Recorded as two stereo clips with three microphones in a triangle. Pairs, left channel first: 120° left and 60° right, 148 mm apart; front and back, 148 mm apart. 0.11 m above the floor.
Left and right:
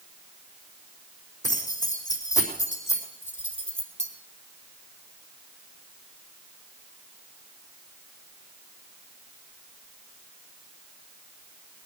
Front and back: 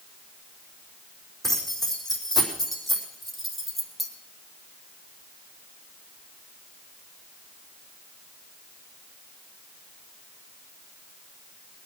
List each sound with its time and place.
1.4 s keys jangling: 90° left, 4 m